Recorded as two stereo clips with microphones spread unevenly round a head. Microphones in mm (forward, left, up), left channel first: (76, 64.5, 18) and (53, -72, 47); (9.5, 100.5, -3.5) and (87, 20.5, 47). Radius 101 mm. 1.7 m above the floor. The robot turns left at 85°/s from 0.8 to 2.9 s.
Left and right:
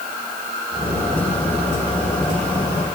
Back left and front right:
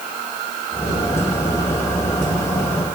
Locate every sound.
Only background noise.